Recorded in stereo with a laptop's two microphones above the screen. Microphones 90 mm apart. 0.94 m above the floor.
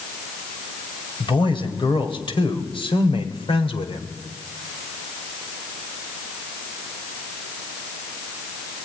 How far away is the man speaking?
About 4 m.